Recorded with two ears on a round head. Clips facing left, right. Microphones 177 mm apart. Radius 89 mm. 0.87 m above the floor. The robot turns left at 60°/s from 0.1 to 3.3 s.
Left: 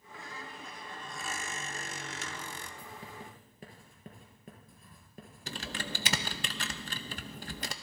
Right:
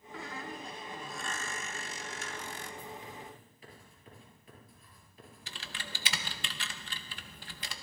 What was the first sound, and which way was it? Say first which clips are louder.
A squeak: right 5 dB; 115° right.